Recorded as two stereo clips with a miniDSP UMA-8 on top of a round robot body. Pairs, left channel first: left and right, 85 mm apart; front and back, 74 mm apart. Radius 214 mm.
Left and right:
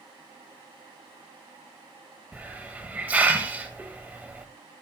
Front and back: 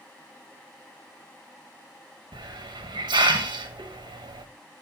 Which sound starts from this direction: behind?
A hiss, at 2.3 s.